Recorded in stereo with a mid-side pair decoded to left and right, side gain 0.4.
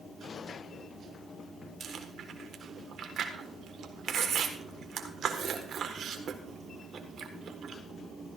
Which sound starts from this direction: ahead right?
Chewing, at 1.8 s.